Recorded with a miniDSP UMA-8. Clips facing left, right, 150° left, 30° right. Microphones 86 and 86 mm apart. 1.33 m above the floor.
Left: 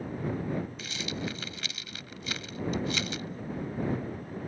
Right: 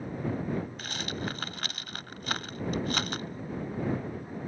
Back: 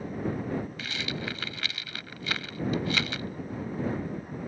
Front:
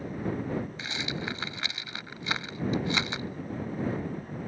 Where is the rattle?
90° right.